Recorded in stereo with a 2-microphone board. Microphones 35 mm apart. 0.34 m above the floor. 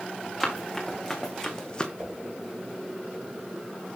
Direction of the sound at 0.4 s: 10° left (ahead or behind).